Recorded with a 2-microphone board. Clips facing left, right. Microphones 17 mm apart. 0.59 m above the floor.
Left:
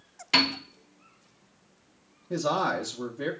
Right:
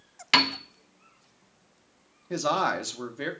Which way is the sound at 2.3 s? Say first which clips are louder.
Right 1 dB; 25° right (ahead or behind).